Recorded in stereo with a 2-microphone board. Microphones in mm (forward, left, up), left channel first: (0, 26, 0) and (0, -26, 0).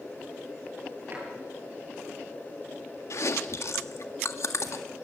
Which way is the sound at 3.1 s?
65° left (ahead or behind).